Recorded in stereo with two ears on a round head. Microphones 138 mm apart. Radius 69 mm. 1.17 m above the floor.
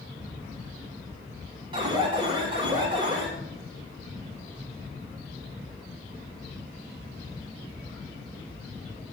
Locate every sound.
1.7 s an alarm: 35° right (ahead or behind), 4 m